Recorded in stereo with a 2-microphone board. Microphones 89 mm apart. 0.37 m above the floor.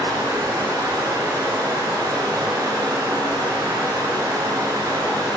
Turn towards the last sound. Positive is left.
turn(degrees=-40)  # may be behind; listen again after turning